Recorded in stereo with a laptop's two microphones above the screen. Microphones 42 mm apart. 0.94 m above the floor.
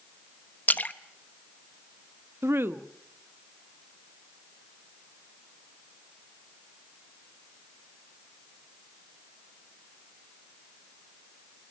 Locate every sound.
0.7 s a splash: 40° left (ahead or behind), 0.8 m
2.4 s a woman speaking: 70° right (ahead or behind), 1.3 m